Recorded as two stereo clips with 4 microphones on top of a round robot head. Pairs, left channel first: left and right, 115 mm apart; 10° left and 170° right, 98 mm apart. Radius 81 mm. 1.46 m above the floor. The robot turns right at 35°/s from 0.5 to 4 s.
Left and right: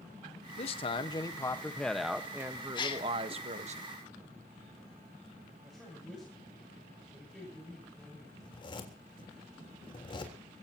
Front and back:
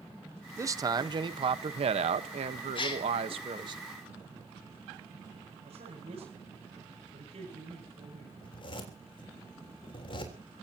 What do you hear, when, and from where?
0.6 s a man speaking: 130° left, 1.3 m; by 3.8 s 120° right, 1.3 m
2.8 s a gasp: 40° left, 2.5 m; by 3.1 s 50° left, 2.5 m
5.6 s a man speaking: 175° right, 7.5 m
8.4 s a zipper: 45° left, 4 m